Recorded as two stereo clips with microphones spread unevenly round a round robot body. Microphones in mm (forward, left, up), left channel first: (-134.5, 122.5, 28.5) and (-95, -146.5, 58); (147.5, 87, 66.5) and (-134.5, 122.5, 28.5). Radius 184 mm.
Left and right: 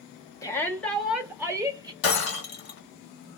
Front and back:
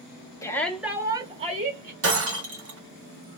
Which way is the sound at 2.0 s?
130° left.